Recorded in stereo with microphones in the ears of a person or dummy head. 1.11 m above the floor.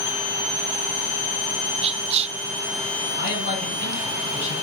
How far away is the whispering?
About 0.6 m.